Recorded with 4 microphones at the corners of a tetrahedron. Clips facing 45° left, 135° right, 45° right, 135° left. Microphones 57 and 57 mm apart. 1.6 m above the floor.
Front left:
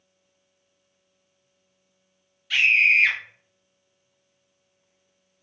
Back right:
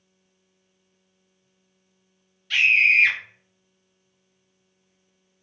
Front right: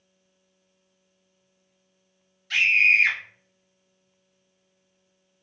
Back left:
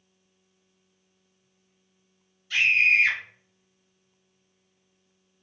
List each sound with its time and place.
2.5 s a scream: 40° right, 1.1 m